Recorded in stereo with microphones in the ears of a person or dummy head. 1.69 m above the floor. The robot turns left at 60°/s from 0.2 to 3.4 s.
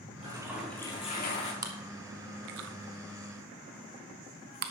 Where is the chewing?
20° right (ahead or behind), 0.9 m; by 4.7 s 55° right (ahead or behind), 0.9 m.